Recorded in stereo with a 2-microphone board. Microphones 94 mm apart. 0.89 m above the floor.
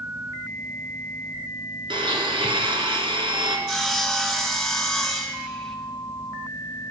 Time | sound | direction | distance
1.9 | a blender | 70° right (ahead or behind) | 2.0 m
3.7 | sawing | centre (ahead or behind) | 1.8 m